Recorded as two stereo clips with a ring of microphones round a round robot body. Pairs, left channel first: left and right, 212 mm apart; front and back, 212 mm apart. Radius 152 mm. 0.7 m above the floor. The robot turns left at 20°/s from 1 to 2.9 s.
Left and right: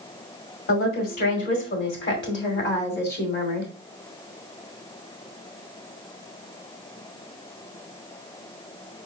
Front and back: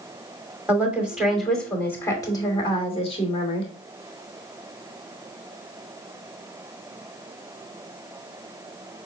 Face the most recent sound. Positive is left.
turn(degrees=60)